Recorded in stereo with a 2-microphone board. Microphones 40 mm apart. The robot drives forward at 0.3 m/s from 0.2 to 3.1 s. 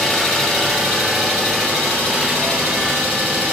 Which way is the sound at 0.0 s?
10° left (ahead or behind).